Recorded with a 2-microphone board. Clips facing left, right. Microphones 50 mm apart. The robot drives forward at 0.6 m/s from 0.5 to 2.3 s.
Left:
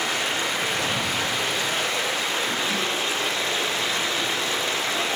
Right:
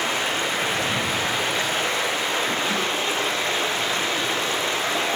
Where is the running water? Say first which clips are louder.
Right 1 dB; 30° right (ahead or behind), 8 m; by 5.2 s 35° right (ahead or behind), 7.5 m.